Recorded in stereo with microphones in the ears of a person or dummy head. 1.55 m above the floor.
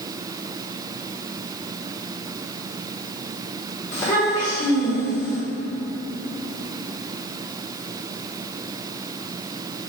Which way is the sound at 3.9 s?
10° left (ahead or behind).